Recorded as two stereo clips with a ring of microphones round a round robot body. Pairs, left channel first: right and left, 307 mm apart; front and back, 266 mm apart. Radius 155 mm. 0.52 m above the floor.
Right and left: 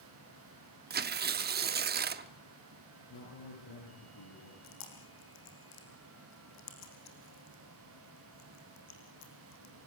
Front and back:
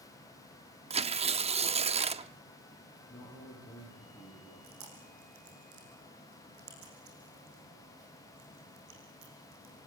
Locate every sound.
0.9 s tearing paper: 125° left, 0.8 m
3.1 s a man speaking: 85° right, 8 m
4.6 s chewing: 130° right, 6 m